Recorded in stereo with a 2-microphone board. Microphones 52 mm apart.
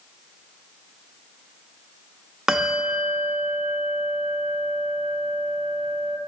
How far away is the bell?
About 0.7 m.